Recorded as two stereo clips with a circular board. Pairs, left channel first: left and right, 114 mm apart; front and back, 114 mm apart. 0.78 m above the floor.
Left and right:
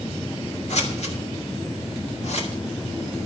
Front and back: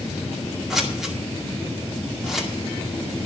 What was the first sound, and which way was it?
Scissors, 95° left.